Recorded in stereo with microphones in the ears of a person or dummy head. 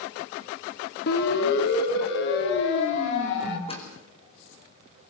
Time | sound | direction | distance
1.1 | a siren | 60° left (ahead or behind) | 2.5 m
3.7 | a door slam | 20° left (ahead or behind) | 4.5 m